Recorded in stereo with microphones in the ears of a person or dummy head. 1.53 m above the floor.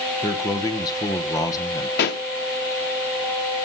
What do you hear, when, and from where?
0.2 s a man speaking: 20° left (ahead or behind), 1.5 m
2.0 s a pop: 45° left (ahead or behind), 1.0 m